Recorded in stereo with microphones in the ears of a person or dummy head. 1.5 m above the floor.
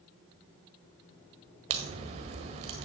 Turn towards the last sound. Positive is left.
turn(degrees=-35)  # may be behind; listen again after turning